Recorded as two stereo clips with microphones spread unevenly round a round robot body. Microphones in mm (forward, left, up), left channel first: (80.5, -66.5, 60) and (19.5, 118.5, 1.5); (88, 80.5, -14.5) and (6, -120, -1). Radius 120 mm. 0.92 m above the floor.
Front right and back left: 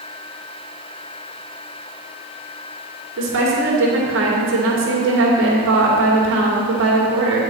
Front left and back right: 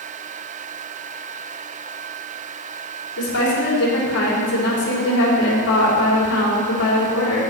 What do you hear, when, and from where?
3.2 s a woman speaking: 100° left, 2.5 m